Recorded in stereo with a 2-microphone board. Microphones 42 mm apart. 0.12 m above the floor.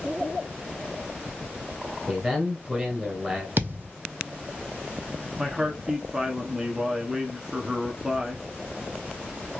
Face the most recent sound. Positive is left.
turn(degrees=-10)  # may be behind; listen again after turning